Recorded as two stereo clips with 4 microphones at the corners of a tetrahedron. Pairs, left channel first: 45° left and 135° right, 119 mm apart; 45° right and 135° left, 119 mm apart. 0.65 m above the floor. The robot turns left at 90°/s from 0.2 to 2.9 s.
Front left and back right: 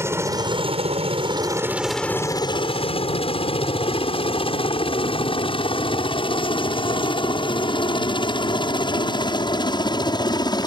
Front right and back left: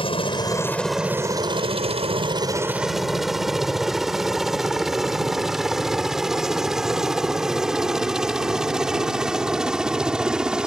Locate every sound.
0.0 s a helicopter: 70° right; by 10.7 s 55° left